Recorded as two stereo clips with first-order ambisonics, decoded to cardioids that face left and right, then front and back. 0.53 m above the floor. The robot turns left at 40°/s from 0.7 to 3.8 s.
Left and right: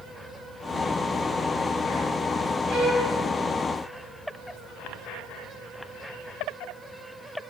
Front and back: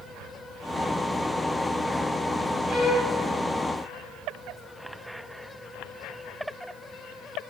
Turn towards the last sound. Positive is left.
turn(degrees=-135)